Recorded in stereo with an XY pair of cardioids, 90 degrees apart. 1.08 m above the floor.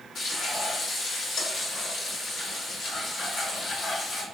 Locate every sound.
0.1 s frying: 70° left, 1.5 m